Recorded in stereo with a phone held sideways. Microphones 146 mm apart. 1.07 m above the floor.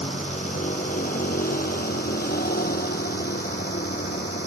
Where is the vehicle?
50° left (ahead or behind); by 4.5 s 70° left (ahead or behind).